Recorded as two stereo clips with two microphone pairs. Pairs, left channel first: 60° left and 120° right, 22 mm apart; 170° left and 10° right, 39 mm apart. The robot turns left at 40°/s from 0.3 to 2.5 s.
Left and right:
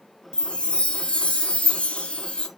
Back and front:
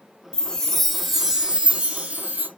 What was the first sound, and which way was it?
A chime, 105° left.